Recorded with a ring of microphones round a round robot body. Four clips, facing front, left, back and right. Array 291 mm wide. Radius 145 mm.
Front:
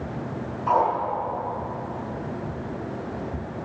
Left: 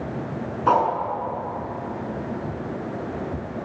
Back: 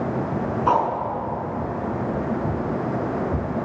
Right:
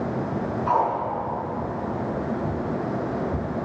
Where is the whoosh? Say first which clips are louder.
Left 3 dB, back 1 dB; 120° left, 7 m.